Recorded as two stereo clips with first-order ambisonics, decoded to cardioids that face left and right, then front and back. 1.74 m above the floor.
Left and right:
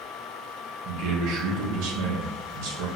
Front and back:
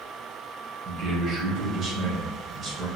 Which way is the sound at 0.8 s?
110° right.